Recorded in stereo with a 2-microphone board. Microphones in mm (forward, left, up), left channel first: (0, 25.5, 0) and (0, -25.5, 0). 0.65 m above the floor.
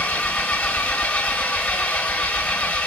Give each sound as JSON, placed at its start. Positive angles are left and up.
{"t": 0.0, "sound": "an engine running", "side_deg": 20, "distance_m": 1.2}